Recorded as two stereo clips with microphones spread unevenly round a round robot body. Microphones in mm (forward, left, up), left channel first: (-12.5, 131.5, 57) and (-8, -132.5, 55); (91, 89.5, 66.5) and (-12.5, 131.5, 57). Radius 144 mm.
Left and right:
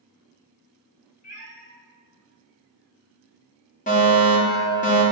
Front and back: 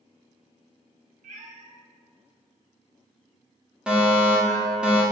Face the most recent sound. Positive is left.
turn(degrees=95)